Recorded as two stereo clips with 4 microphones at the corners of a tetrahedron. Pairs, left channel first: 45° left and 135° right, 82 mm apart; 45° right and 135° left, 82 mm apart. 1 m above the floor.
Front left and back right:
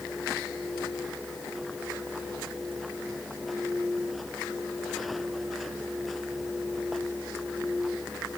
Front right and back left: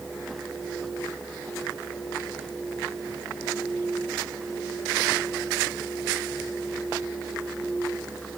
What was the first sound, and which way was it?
Only background noise.